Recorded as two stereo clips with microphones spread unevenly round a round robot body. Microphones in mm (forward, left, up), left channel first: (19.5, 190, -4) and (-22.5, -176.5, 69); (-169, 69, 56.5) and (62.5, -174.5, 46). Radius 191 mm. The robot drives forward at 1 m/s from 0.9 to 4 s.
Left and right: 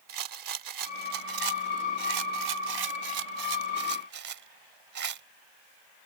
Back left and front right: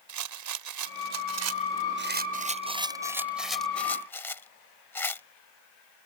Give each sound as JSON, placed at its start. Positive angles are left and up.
{"t": 0.1, "sound": "a rattle", "azimuth_deg": -60}